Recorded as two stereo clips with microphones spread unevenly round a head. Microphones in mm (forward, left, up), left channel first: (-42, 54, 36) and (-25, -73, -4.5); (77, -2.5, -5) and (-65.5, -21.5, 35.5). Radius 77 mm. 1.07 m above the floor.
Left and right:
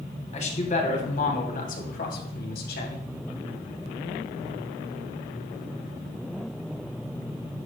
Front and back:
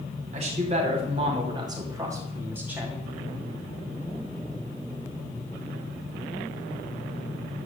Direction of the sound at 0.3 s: 135° left.